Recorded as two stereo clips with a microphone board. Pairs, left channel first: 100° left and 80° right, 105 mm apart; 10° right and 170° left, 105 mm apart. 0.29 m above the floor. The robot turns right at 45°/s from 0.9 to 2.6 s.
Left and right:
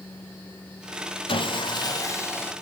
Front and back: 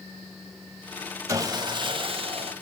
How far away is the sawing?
About 0.8 m.